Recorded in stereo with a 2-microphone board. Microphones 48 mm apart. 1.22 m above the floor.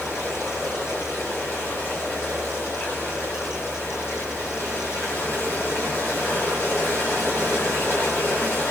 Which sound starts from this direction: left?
Running water, at 0.0 s.